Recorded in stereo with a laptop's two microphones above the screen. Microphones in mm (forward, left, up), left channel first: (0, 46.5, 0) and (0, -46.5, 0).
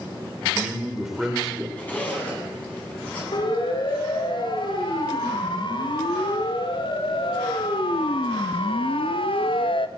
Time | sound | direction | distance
0.4 | a man speaking | 5° right (ahead or behind) | 3 m
1.8 | a zipper | 15° left (ahead or behind) | 9 m
3.3 | a siren | 55° left (ahead or behind) | 5.5 m